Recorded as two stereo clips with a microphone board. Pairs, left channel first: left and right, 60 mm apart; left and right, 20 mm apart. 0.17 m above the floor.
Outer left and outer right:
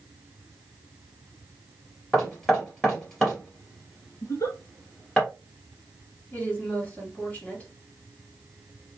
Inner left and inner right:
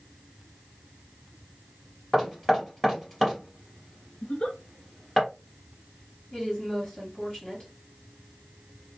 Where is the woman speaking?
25° left (ahead or behind), 2.5 m.